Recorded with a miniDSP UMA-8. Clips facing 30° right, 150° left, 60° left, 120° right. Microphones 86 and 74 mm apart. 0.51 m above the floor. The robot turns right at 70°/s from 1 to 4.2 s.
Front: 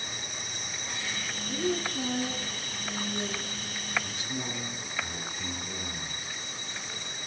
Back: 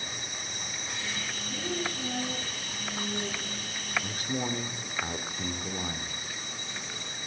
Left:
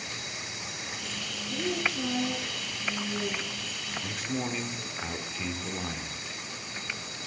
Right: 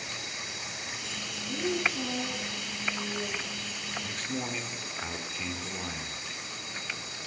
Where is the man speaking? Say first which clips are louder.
Back 4 dB, left 4 dB; 130° left, 0.9 m; by 6.2 s 145° left, 0.9 m.